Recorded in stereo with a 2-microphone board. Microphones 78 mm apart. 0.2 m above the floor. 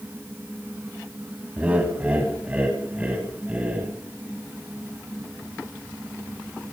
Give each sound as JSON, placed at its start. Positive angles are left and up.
{"t": 1.6, "sound": "laughter", "side_deg": -20, "distance_m": 1.2}